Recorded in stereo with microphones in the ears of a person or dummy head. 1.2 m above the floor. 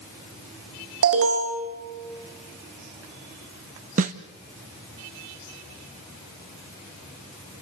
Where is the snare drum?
40° right (ahead or behind), 0.8 m.